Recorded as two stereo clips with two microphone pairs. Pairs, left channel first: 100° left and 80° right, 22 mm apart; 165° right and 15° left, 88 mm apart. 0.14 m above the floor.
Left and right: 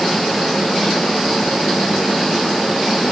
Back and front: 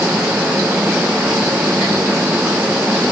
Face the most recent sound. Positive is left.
No sound to turn to.